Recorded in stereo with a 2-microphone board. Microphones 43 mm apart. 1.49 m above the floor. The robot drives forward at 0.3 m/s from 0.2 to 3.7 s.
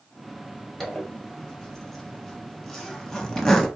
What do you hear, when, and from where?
0.8 s a zipper: 5° left (ahead or behind), 1.3 m; by 3.7 s 10° left (ahead or behind), 0.9 m